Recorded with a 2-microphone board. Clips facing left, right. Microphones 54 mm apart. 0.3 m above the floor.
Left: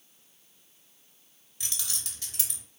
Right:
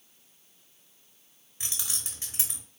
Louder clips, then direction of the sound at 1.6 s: Even; 25° right (ahead or behind).